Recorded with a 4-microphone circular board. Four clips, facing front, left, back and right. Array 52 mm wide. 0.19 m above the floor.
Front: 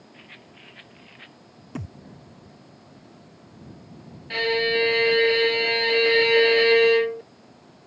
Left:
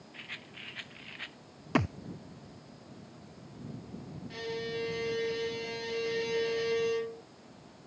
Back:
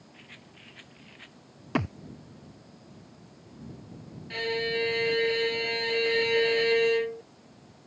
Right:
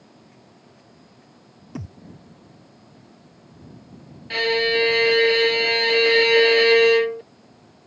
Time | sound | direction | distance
0.1 | a rattle | 70° left | ?
1.8 | a thud | 130° left | ?
4.3 | a violin | 65° right | ?